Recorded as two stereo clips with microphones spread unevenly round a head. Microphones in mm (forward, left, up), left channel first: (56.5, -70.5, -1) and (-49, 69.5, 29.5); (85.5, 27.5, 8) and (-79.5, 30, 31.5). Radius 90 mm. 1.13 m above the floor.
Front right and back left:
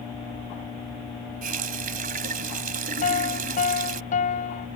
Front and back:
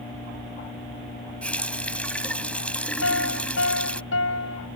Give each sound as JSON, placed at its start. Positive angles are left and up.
{"t": 1.4, "sound": "a running tap", "azimuth_deg": 85}
{"t": 3.0, "sound": "a piano", "azimuth_deg": 0}